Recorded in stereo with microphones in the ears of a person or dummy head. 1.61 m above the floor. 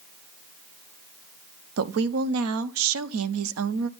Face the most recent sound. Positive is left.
turn(degrees=-80)